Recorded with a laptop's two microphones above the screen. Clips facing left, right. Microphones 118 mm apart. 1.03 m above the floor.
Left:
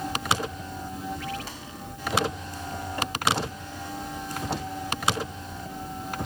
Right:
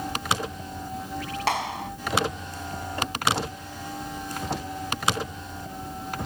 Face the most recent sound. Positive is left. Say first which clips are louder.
# right 13 dB
turn(degrees=-80)